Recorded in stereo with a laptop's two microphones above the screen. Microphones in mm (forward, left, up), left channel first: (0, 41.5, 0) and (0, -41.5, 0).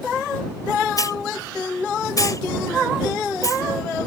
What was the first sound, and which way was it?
A hiss, 45° left (ahead or behind).